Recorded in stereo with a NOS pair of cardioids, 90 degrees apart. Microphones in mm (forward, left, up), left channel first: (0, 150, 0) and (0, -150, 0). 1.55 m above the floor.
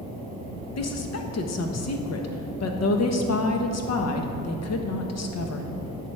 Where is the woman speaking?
55° left, 1.4 m.